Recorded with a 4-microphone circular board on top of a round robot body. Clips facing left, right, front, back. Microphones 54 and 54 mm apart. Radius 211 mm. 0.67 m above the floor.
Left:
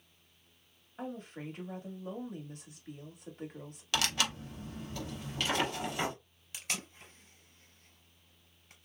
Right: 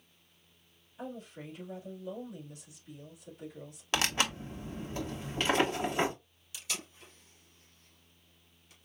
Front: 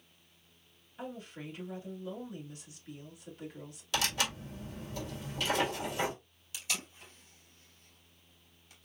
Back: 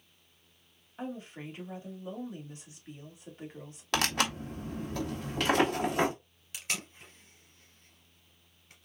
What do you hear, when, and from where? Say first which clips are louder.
1.0 s a woman speaking: left 1 dB, back 3 dB; 120° left, 2.5 m
3.9 s tearing paper: right 2 dB, back 4 dB; 150° right, 1.5 m
6.5 s tape being pulled: left 1 dB, back 2 dB; 135° left, 3 m